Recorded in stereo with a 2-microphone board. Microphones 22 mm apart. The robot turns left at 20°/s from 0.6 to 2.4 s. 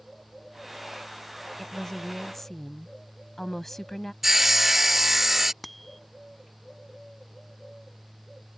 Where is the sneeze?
No sneeze in this recording.